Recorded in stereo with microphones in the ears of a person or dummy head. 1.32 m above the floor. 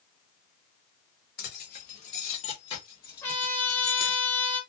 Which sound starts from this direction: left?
Keys jangling, at 1.4 s.